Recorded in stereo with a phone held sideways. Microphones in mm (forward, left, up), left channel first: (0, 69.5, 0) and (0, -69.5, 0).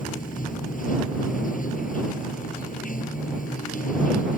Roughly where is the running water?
Left.